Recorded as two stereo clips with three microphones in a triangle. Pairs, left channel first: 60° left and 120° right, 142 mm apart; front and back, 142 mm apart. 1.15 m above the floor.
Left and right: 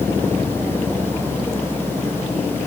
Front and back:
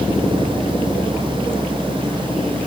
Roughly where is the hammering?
No hammering in this recording.